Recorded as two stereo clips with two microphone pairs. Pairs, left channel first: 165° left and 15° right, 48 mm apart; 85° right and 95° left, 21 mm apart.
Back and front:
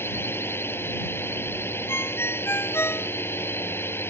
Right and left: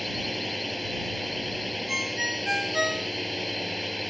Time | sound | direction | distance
0.0 | a drone | 170° right | ?
1.9 | a ringtone | 175° left | ?